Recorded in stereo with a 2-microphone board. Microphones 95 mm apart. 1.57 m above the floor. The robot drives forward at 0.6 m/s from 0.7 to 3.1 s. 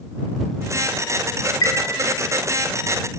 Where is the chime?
40° left (ahead or behind), 1.4 m.